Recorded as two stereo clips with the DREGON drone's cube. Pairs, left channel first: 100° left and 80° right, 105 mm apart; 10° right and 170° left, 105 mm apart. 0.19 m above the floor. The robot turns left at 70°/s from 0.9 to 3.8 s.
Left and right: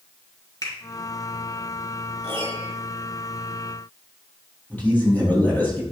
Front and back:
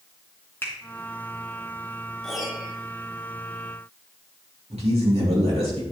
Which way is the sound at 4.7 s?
170° left.